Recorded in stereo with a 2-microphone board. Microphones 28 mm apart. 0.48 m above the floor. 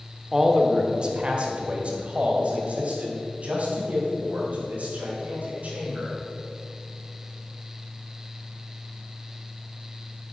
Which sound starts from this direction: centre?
A man speaking, at 0.3 s.